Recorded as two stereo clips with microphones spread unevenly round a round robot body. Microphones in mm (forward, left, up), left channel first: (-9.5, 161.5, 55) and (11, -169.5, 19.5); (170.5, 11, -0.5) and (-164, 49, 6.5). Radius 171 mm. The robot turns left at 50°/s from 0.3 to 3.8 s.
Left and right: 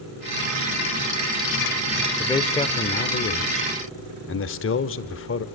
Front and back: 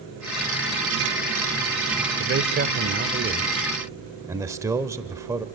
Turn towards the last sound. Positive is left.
turn(degrees=100)